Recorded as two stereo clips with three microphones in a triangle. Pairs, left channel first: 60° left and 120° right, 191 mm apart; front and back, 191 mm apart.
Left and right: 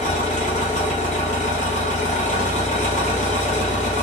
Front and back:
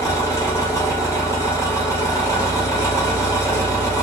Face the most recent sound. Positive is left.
turn(degrees=65)